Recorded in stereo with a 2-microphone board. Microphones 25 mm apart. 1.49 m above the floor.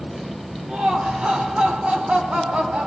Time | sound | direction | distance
0.7 | laughter | 60° right (ahead or behind) | 1.1 m